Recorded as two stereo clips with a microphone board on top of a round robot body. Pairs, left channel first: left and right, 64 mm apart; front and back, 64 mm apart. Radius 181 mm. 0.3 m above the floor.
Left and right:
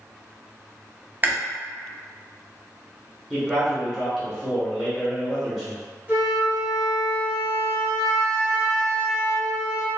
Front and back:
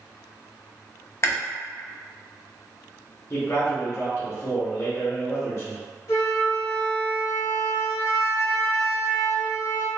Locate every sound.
1.2 s chewing: 35° right, 0.7 m
3.3 s a man speaking: 15° right, 1.1 m
6.1 s a flute: 35° right, 1.7 m